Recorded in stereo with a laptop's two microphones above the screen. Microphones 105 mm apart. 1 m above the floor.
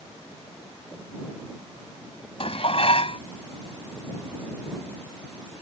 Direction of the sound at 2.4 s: 60° left (ahead or behind).